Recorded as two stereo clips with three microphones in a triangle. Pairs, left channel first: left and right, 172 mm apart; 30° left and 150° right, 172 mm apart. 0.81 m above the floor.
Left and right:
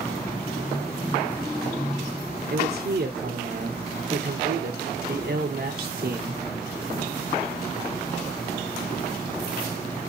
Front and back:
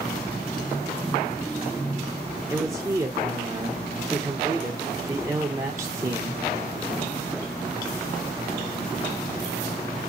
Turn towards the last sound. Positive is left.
turn(degrees=-80)